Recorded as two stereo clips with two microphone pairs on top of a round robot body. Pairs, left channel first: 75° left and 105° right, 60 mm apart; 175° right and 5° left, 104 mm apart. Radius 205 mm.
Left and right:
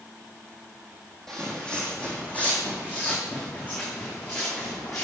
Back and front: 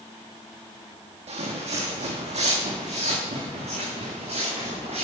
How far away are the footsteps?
About 1.4 m.